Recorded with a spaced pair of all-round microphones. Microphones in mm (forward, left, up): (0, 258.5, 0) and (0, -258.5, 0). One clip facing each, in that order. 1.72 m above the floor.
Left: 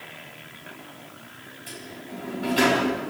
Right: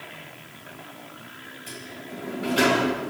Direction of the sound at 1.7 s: 15° left (ahead or behind).